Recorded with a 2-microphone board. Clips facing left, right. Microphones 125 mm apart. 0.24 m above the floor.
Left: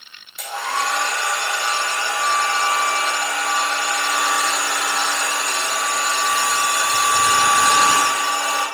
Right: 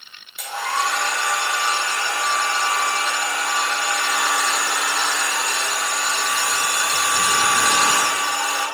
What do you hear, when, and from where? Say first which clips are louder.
0.4 s a hair dryer: even; 5° right (ahead or behind), 4 m